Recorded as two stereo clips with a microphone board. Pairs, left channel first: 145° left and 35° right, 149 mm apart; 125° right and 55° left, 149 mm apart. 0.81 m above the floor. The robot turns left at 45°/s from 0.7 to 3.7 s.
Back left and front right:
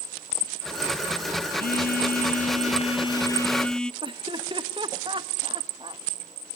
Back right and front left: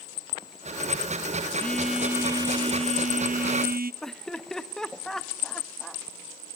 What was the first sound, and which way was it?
A phone buzzing, 155° left.